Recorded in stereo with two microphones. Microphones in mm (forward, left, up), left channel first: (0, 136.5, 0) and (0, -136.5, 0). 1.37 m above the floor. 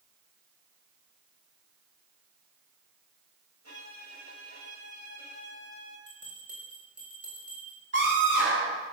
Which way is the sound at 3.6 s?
65° right (ahead or behind).